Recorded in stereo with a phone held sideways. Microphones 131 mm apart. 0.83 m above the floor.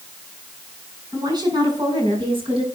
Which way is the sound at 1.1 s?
30° right (ahead or behind).